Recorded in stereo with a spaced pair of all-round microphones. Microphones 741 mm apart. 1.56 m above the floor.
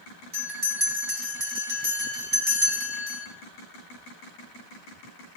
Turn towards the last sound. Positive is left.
turn(degrees=-80)